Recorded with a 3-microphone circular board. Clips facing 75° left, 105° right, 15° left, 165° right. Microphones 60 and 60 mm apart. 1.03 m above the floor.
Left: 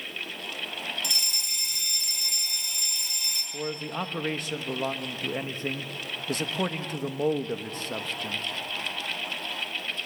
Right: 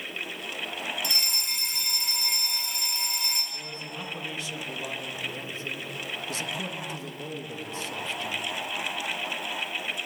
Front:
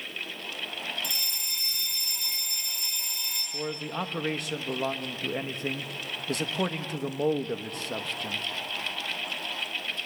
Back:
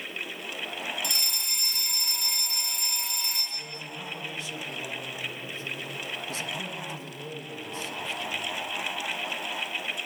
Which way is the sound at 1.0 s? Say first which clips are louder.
Right 2 dB, back 2 dB; 155° right.